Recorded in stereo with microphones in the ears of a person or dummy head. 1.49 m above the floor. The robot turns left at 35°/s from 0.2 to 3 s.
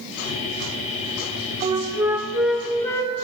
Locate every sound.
1.6 s a flute: 35° right (ahead or behind), 0.6 m; by 3.2 s 15° left (ahead or behind), 0.6 m